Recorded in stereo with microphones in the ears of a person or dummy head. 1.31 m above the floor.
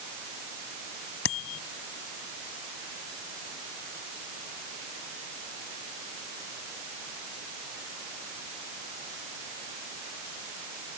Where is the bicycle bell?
60° left (ahead or behind).